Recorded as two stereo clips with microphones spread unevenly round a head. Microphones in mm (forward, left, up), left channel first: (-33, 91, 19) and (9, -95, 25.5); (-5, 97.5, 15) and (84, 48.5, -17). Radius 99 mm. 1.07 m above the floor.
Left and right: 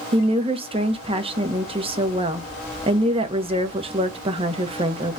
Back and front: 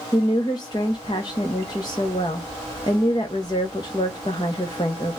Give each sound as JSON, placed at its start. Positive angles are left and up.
{"t": 0.1, "sound": "a woman speaking", "azimuth_deg": -135, "distance_m": 0.8}